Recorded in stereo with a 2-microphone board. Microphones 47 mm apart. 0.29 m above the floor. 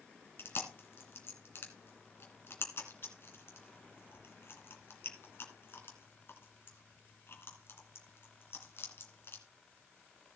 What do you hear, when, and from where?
0.4 s chewing: 55° left (ahead or behind), 2 m